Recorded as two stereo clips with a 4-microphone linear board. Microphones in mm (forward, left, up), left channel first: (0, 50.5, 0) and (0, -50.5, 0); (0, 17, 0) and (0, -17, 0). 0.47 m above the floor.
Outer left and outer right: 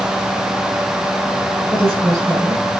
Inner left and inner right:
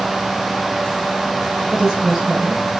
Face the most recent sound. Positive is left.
turn(degrees=-5)  # may be behind; listen again after turning